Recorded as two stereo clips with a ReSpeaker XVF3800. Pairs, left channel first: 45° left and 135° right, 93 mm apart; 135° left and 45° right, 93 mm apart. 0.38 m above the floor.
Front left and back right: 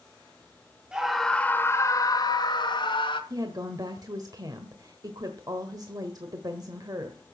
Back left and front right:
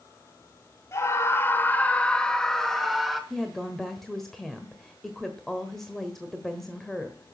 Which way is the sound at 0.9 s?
150° left.